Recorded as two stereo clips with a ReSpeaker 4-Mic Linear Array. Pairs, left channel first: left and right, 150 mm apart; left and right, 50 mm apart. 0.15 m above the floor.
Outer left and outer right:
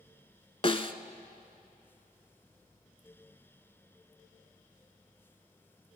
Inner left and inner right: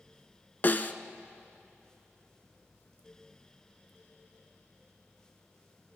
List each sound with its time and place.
0.6 s a snare drum: 40° left (ahead or behind), 0.6 m